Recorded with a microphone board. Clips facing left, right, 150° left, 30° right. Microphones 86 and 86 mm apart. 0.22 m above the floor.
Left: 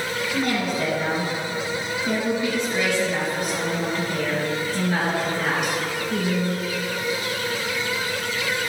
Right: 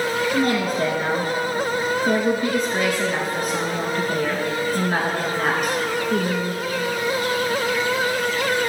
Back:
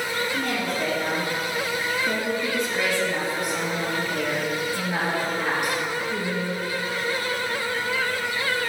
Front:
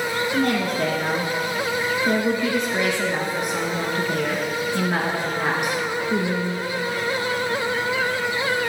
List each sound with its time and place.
0.3 s a woman speaking: 50° right, 2.5 m